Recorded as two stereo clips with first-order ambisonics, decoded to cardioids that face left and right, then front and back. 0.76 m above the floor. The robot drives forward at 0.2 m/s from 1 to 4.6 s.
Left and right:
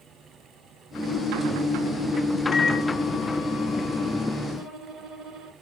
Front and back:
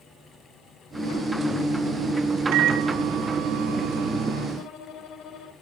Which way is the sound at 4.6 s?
60° right.